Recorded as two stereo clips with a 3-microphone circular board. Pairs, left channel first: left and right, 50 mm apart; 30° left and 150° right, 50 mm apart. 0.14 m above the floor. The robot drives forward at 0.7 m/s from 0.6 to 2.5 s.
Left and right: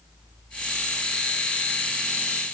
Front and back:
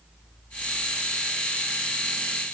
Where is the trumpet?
I don't hear a trumpet.